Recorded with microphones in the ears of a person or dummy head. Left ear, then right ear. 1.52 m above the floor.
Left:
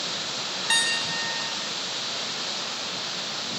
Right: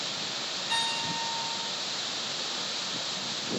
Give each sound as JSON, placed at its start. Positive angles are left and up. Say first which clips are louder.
{"t": 0.7, "sound": "a piano", "louder": "left 6 dB", "side_deg": 50, "distance_m": 0.5}